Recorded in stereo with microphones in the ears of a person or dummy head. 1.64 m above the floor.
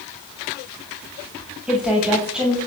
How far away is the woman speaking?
About 7.5 m.